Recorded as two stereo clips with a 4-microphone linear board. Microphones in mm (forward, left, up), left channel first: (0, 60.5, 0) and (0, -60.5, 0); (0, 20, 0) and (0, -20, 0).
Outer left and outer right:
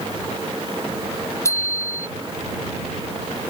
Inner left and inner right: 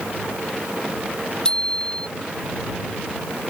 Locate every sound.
1.4 s a bicycle bell: 25° left (ahead or behind)